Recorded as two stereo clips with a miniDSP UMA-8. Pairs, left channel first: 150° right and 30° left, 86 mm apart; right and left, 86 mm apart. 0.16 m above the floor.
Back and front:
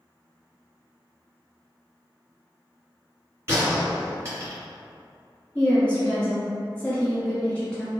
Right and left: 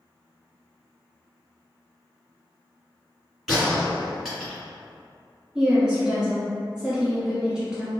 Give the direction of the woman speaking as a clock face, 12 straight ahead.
7 o'clock.